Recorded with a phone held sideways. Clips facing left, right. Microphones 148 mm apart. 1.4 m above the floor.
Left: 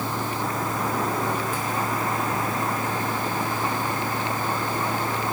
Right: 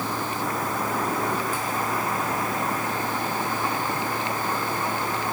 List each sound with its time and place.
0.0 s a fan: 25° left (ahead or behind)